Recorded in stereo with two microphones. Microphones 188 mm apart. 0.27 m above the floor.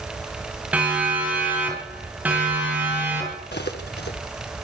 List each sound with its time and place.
0.7 s a siren: 10° right (ahead or behind), 9 m
3.5 s cutlery clinking: 70° left (ahead or behind), 1.6 m